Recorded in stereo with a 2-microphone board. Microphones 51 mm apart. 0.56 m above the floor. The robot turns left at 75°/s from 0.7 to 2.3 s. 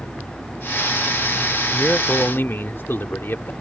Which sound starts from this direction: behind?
A man speaking, at 1.7 s.